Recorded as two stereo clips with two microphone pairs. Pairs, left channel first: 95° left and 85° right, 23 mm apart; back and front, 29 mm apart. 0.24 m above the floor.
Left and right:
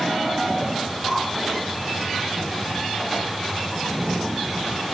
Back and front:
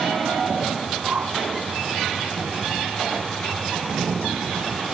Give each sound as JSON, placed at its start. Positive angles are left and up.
{"t": 1.0, "sound": "a whoosh", "azimuth_deg": 5, "distance_m": 4.5}